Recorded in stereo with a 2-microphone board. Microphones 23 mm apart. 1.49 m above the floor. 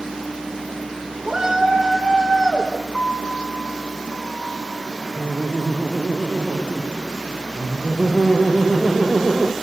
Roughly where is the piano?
Left.